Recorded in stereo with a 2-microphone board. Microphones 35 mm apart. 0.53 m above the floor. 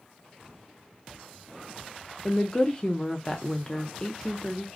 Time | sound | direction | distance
2.2 | a woman speaking | 25° left (ahead or behind) | 0.8 m